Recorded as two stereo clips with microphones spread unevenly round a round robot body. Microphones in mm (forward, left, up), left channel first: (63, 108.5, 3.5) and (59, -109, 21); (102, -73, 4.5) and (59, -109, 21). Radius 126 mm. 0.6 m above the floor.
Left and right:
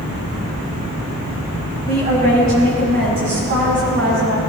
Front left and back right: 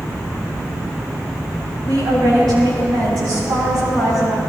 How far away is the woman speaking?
About 4.5 m.